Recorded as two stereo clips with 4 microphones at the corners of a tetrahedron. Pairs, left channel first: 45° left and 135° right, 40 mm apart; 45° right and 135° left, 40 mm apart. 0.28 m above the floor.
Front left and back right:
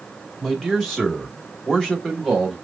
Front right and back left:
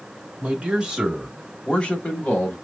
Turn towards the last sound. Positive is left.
turn(degrees=-25)